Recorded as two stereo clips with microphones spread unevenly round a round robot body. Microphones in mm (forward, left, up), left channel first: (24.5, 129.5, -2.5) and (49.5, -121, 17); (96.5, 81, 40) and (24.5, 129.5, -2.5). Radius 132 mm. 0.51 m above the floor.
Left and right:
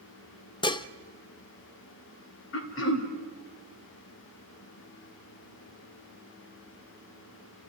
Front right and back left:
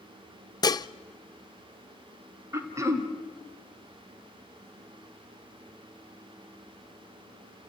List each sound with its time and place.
0.6 s dishes clattering: 30° left, 0.6 m
2.5 s throat clearing: 125° left, 1.8 m